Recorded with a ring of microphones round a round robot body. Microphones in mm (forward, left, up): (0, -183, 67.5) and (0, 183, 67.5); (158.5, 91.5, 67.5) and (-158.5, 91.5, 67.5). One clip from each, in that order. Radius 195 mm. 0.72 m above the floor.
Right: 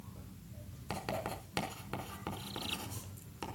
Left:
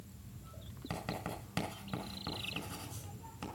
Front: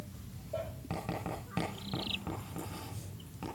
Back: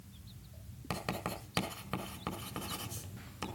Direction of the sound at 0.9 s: 160° right.